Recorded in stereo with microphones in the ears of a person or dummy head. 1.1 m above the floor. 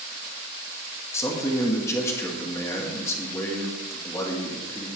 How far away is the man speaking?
About 2 m.